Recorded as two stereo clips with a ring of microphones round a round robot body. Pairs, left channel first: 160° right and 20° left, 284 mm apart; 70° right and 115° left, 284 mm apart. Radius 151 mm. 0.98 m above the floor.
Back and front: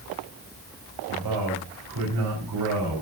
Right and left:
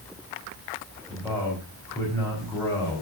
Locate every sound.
1.1 s a man speaking: 10° left, 5 m